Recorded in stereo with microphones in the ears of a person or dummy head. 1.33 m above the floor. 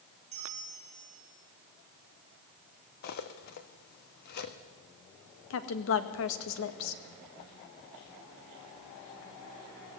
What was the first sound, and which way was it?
A bell, 35° right (ahead or behind).